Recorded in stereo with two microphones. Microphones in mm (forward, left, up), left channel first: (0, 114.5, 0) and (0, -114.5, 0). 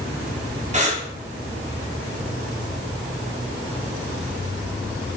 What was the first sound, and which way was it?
Breathing, 30° right (ahead or behind).